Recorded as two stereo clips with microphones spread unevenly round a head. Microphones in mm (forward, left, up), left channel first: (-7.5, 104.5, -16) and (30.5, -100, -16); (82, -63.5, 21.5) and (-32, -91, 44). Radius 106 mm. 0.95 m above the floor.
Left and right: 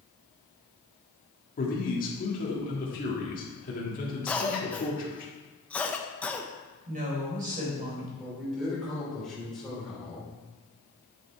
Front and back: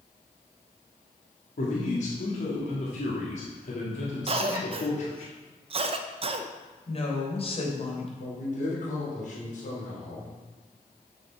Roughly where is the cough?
Behind.